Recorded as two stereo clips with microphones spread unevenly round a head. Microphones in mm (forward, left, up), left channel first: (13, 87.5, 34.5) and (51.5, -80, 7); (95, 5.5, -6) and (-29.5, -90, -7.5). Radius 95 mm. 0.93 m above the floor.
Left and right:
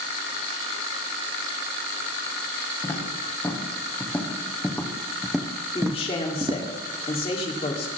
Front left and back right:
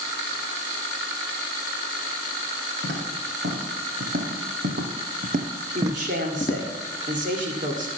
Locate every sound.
2.8 s footsteps: straight behind, 5 m; by 6.8 s 10° right, 1.4 m
5.8 s a man speaking: 165° left, 2.5 m